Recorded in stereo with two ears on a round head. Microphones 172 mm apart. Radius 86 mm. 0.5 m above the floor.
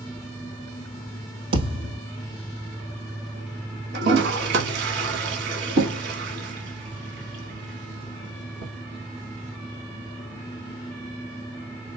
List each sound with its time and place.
1.5 s a thud: 70° right (ahead or behind), 3 m
3.9 s a toilet flushing: 60° right (ahead or behind), 1.1 m